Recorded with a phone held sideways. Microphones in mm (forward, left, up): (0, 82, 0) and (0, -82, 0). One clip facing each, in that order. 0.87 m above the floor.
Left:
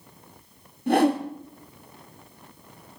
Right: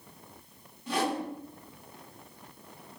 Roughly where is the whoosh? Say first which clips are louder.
Left 10 dB; left.